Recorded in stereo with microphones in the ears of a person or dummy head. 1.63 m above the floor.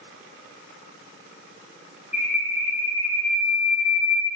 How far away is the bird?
About 1.1 m.